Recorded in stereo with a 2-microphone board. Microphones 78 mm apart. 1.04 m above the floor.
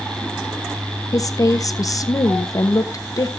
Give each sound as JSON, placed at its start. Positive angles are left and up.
{"t": 1.1, "sound": "a woman speaking", "side_deg": 50, "distance_m": 0.9}